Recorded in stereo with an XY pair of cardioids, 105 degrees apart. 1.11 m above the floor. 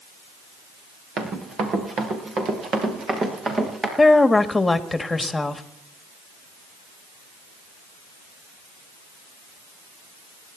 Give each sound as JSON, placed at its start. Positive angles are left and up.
{"t": 1.2, "sound": "running footsteps", "azimuth_deg": -60, "distance_m": 5.0}
{"t": 4.0, "sound": "a woman speaking", "azimuth_deg": 15, "distance_m": 1.9}